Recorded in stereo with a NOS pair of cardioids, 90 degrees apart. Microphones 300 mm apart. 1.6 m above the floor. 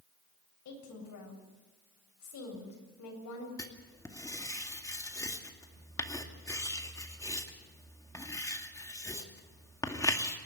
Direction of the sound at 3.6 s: 10° left.